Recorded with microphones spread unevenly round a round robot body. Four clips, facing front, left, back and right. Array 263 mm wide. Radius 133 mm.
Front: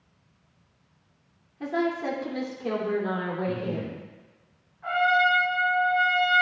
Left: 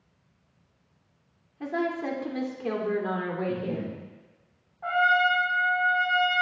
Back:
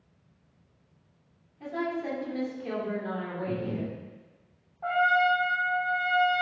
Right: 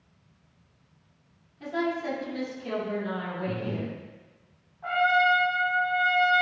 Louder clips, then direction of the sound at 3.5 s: Left 2 dB, front 2 dB; 115° right.